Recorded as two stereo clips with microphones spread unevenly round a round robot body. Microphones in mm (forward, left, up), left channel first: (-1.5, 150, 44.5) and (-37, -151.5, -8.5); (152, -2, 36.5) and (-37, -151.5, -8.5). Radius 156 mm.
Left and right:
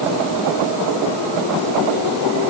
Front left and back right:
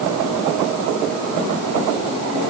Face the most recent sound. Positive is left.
No sound to turn to.